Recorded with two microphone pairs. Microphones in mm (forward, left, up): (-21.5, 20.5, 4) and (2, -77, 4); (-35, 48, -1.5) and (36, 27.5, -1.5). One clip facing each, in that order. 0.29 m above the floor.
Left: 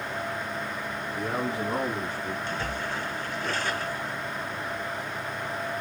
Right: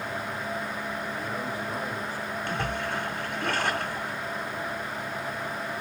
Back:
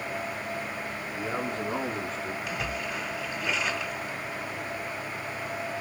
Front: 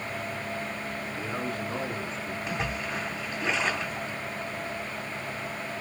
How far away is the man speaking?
About 2 m.